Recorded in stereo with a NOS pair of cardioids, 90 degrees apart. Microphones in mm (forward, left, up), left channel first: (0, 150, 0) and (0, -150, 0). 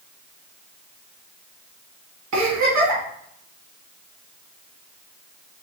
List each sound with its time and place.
2.3 s a giggle: 70° right, 1.7 m